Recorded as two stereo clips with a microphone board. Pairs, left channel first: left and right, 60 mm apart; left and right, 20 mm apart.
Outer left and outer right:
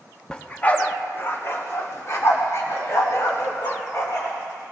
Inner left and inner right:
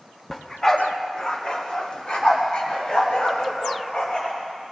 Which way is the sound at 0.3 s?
15° left (ahead or behind).